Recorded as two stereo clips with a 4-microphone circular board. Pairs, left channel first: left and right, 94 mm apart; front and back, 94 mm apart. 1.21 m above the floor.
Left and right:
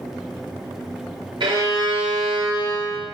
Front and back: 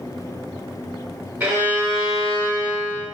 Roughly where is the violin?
Right.